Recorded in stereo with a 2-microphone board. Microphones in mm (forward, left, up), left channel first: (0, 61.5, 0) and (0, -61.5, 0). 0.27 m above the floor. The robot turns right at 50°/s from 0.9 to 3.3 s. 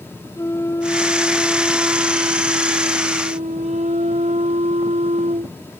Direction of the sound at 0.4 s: 155° left.